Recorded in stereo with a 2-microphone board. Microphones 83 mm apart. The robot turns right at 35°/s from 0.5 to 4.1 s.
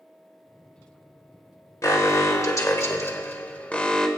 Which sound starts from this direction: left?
An alarm, at 1.8 s.